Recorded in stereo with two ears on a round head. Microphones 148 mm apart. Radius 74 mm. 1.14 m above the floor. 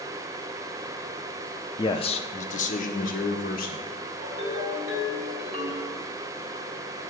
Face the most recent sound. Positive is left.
turn(degrees=-45)  # may be behind; listen again after turning